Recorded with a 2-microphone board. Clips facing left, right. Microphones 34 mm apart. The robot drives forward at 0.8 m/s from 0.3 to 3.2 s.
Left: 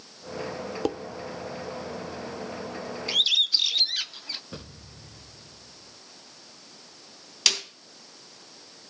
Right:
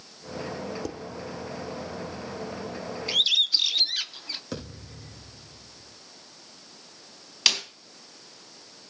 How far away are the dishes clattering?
About 0.8 m.